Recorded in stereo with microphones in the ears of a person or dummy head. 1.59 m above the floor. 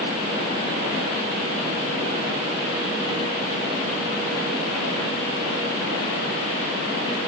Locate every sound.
Only background noise.